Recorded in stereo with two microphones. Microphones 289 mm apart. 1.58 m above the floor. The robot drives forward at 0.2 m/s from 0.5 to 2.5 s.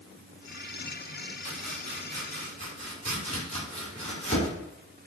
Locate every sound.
1.4 s chopping: 20° left (ahead or behind), 1.7 m